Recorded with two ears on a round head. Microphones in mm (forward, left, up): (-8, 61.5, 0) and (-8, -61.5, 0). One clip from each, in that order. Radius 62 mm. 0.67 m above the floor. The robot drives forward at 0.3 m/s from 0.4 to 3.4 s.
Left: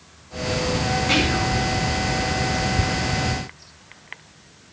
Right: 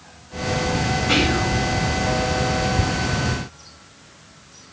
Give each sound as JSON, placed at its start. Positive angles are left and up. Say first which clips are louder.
{"t": 1.1, "sound": "whispering", "louder": "right 2 dB", "side_deg": 35, "distance_m": 1.6}